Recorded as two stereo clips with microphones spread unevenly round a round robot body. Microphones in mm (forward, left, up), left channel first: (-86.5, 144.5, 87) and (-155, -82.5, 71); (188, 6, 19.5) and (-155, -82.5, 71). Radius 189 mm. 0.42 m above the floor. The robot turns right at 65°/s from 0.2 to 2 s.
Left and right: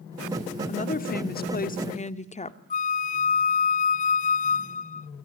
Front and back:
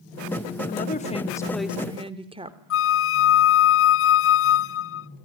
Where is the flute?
25° left, 0.5 m.